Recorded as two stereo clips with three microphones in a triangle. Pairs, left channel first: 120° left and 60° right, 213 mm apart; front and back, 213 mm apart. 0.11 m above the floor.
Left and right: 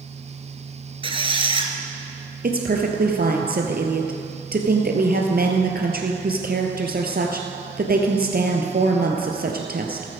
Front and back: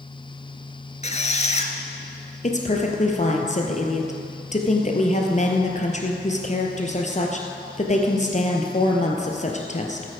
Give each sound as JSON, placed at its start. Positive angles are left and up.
{"t": 1.0, "sound": "a squeak", "azimuth_deg": -20, "distance_m": 1.2}
{"t": 2.4, "sound": "a woman speaking", "azimuth_deg": -40, "distance_m": 1.8}